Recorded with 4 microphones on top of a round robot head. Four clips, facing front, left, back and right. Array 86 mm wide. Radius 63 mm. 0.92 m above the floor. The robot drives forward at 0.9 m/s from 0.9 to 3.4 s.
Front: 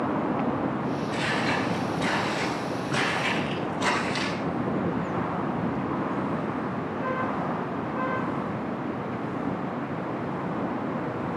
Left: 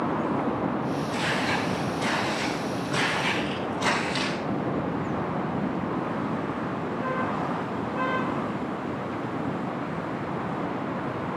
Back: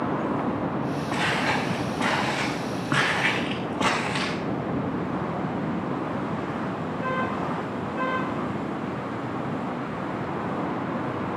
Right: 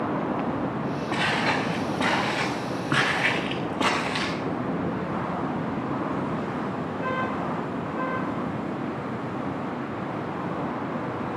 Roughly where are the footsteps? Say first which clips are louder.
Right 5 dB, back 3 dB; behind right.